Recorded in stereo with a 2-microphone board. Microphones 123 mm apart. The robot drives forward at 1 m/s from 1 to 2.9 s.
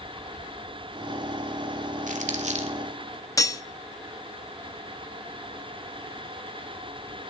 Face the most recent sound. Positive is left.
turn(degrees=30)  # may be behind; listen again after turning